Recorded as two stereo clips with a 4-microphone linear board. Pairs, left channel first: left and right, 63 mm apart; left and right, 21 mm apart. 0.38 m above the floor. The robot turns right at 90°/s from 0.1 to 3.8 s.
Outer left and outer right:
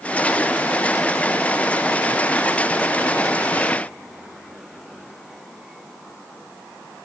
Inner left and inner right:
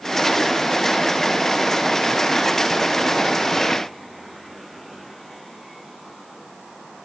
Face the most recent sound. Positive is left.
No sound to turn to.